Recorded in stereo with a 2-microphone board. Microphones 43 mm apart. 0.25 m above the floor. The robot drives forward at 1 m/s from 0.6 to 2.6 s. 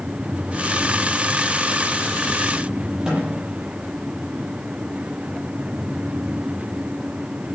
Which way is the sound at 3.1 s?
15° right (ahead or behind).